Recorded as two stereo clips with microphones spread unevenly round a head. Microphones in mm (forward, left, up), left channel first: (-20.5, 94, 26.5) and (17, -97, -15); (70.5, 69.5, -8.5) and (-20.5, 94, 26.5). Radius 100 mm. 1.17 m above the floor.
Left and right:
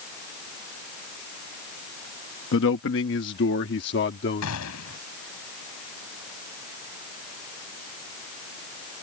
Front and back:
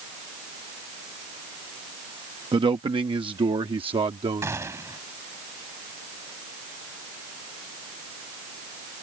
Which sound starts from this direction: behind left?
A man speaking, at 2.5 s.